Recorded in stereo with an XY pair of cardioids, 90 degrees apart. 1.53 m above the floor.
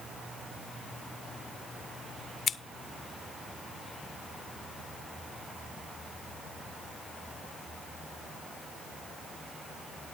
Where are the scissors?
55° left, 0.9 m.